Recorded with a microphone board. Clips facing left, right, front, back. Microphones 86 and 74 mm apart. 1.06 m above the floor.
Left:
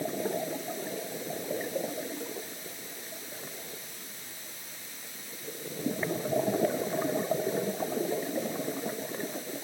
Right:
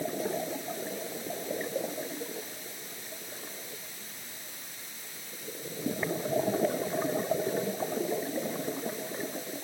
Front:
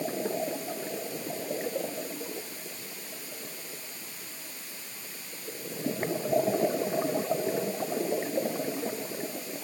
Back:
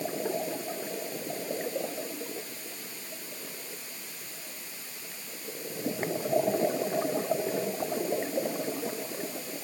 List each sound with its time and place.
Only background noise.